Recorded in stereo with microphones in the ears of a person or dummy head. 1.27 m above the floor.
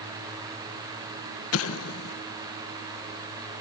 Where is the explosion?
80° left.